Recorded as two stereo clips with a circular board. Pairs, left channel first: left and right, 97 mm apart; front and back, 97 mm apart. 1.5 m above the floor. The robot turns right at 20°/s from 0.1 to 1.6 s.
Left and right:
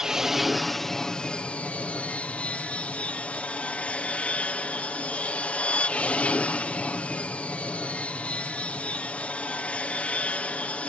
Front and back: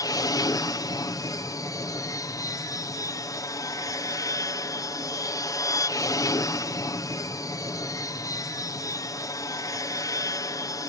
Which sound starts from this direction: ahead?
An aircraft, at 0.0 s.